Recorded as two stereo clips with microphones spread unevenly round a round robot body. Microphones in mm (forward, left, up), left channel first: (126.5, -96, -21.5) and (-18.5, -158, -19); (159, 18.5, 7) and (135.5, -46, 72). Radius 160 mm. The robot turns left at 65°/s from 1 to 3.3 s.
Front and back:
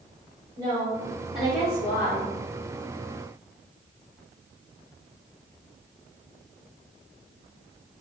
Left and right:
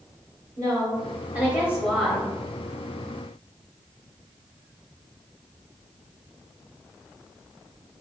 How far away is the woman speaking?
About 1.1 m.